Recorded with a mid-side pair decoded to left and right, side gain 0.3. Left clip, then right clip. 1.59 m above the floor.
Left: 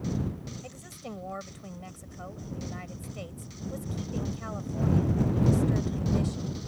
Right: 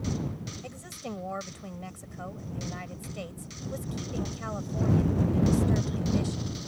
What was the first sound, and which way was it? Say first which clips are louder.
A woman speaking: right 3 dB; 25° right.